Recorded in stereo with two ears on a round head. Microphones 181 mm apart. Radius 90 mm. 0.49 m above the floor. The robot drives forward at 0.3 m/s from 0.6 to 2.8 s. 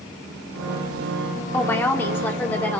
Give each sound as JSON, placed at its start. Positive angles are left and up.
{"t": 1.5, "sound": "a woman speaking", "side_deg": 10, "distance_m": 0.8}